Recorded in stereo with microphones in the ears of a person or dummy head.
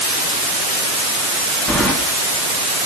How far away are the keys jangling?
About 2.5 m.